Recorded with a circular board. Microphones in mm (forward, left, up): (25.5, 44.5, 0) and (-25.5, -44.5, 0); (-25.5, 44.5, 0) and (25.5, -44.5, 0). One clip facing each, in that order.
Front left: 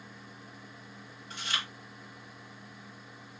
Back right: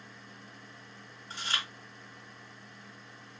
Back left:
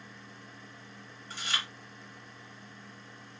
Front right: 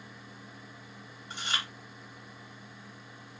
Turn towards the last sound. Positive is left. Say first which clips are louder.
# even, front right 1 dB
turn(degrees=-110)